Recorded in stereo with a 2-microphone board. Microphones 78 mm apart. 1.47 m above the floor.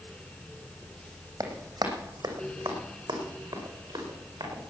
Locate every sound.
1.4 s running footsteps: 55° right (ahead or behind), 3 m; by 4.7 s 80° right, 7 m